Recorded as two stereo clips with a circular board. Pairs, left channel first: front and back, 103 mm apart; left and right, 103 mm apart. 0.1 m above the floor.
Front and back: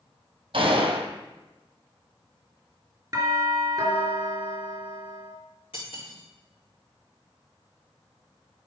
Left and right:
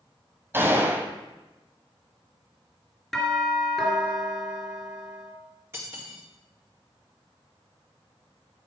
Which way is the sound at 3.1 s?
170° left.